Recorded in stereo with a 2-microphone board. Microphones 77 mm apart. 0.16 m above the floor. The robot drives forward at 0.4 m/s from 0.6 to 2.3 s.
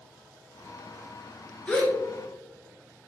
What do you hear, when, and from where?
1.7 s a gasp: 15° left (ahead or behind), 1.8 m